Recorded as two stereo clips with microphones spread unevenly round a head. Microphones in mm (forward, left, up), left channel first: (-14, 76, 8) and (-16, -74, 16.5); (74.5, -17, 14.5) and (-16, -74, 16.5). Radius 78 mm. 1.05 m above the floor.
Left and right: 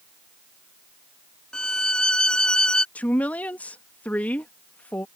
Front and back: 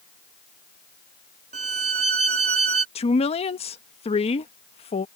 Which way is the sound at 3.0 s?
10° left.